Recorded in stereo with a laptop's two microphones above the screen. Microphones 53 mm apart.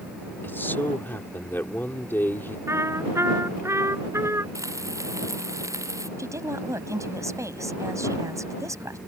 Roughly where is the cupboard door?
I don't hear a cupboard door.